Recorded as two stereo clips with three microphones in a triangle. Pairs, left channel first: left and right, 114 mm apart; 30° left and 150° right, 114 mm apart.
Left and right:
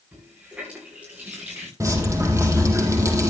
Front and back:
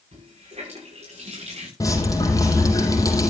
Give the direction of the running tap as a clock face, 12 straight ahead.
6 o'clock.